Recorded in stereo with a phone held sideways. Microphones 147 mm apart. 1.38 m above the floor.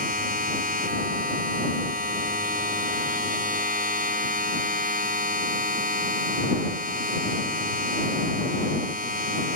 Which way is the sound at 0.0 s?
85° right.